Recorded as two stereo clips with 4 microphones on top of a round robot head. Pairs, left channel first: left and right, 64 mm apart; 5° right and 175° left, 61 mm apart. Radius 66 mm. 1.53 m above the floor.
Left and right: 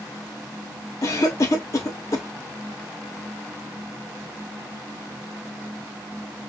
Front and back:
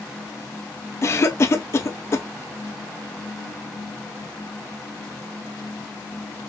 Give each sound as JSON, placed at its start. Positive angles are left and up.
{"t": 1.0, "sound": "a cough", "azimuth_deg": 40, "distance_m": 0.9}